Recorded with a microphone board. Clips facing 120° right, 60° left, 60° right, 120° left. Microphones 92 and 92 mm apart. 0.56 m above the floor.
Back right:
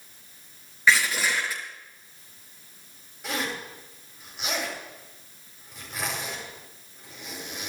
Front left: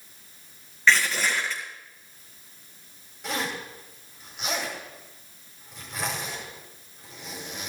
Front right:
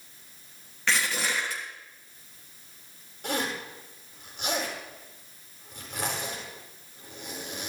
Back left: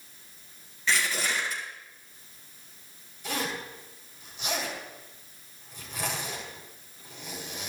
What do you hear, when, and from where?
0.9 s crushing: 40° right, 7 m
3.2 s a zipper: 30° right, 9.5 m